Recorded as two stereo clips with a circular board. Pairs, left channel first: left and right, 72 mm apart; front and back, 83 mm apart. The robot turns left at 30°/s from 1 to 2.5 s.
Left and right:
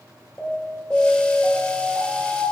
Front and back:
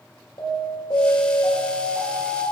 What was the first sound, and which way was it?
An alarm, 20° left.